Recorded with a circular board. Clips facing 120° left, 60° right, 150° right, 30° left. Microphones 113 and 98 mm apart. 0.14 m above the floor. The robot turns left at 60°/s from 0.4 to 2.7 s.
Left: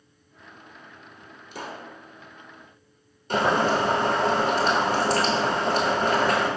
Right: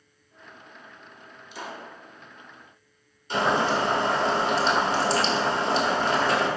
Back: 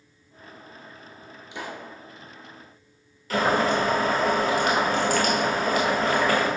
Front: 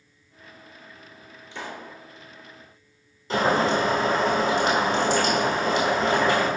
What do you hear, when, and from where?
1.5 s a pop: 140° left, 0.6 m; by 1.9 s 115° left, 0.6 m
3.3 s boiling: 90° left, 0.9 m